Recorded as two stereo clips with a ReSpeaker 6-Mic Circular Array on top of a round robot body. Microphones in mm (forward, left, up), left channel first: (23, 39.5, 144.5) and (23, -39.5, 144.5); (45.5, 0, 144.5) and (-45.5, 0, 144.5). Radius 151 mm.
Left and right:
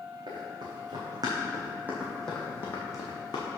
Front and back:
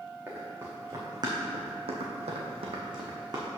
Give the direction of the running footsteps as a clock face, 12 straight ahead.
4 o'clock.